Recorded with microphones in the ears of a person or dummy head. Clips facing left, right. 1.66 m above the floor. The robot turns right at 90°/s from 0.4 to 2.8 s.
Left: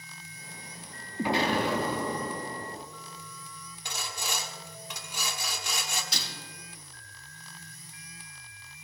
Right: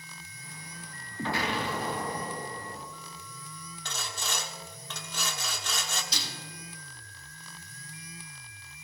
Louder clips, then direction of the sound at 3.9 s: Left 1 dB; 15° left (ahead or behind).